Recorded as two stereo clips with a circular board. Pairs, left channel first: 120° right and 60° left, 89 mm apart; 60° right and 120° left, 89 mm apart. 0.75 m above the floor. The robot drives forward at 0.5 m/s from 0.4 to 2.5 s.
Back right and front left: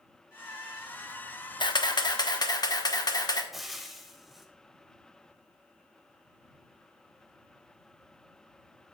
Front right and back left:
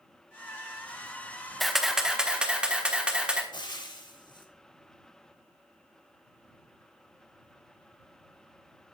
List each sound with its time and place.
1.6 s a camera shutter: 150° right, 0.7 m; by 3.4 s 160° right, 1.1 m
3.5 s frying: 30° right, 0.9 m